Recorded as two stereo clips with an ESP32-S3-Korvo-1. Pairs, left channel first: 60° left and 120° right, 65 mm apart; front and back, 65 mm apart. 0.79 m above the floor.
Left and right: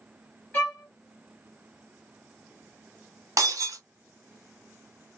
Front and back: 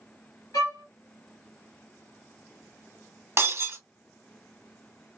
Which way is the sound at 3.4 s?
145° right.